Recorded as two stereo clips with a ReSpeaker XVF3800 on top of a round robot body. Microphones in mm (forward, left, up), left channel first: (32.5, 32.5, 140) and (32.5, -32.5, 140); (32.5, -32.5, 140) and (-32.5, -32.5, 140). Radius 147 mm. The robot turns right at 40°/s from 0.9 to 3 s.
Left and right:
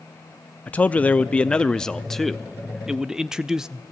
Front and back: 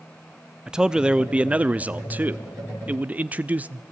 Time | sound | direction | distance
0.7 | a man speaking | 120° left | 0.8 m